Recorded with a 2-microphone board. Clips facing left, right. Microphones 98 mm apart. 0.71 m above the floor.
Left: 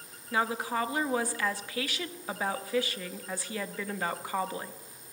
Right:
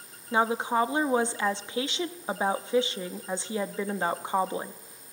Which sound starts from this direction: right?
A woman speaking, at 0.3 s.